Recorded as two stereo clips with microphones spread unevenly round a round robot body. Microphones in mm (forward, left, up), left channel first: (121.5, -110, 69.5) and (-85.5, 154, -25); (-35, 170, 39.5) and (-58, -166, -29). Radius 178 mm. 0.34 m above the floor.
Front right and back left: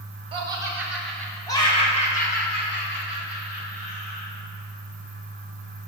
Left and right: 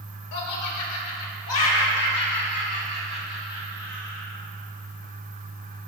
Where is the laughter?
75° left, 1.5 m; by 4.3 s 5° right, 2.5 m.